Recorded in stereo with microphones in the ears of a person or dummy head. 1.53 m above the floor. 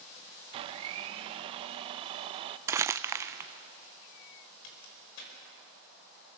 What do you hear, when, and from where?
0.5 s a blender: 25° right (ahead or behind), 0.8 m
2.7 s crumpling: 15° right (ahead or behind), 0.8 m
4.6 s a crack: 65° left (ahead or behind), 6 m